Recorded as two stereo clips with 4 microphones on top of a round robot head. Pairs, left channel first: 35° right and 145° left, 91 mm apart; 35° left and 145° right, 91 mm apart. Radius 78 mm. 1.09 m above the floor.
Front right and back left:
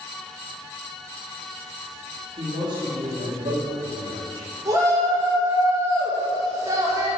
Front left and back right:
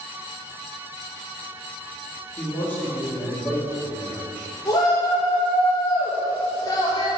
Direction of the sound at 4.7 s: 85° left.